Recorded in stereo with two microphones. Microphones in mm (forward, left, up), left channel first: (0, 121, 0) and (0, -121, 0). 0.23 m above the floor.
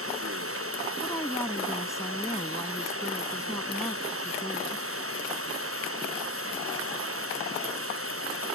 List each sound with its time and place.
0.0 s running water: 65° right (ahead or behind)
1.0 s a woman speaking: 15° left (ahead or behind)